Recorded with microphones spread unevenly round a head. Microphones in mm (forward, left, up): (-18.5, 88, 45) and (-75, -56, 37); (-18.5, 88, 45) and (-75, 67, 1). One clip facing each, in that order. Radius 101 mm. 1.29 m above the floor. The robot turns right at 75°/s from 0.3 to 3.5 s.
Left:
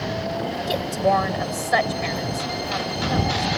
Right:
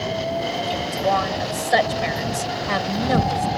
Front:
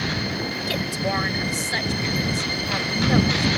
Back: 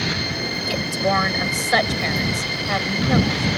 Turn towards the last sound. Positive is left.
turn(degrees=-40)